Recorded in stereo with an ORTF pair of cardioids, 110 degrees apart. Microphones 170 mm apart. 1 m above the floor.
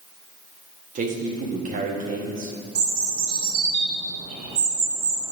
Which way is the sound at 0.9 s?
50° right.